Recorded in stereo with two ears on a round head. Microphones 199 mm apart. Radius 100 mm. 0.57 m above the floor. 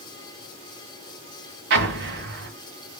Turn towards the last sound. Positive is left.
turn(degrees=-60)  # may be behind; listen again after turning